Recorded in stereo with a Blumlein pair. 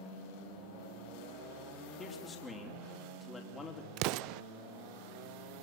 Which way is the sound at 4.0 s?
40° right.